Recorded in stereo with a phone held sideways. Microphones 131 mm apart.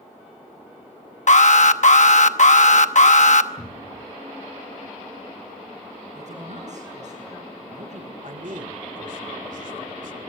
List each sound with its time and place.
1.3 s an alarm: 60° left (ahead or behind), 0.9 m
3.6 s a cupboard door: 50° left (ahead or behind), 5 m
6.2 s a man speaking: 55° right (ahead or behind), 7.5 m
8.2 s a man speaking: 70° right (ahead or behind), 2.5 m